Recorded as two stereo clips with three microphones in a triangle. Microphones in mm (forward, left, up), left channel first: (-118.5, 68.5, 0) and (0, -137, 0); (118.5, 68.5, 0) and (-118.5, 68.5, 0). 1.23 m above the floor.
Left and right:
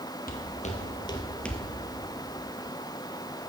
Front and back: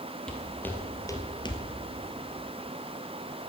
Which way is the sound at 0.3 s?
85° left.